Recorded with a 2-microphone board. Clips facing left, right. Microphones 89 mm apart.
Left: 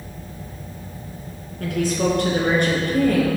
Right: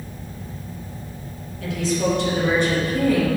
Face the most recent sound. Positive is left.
turn(degrees=60)  # may be behind; listen again after turning